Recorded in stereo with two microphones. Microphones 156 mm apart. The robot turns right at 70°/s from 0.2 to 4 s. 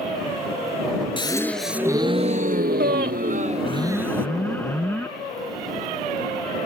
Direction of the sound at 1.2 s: 145° left.